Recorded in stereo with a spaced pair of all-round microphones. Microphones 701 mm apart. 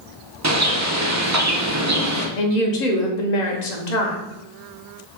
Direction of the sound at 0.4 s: 25° right (ahead or behind).